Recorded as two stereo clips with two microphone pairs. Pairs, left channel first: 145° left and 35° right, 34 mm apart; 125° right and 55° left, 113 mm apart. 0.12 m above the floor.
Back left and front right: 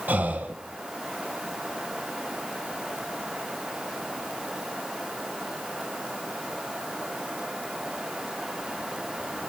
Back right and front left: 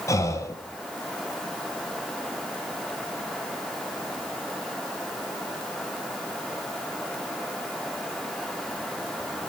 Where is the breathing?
65° right, 0.6 m.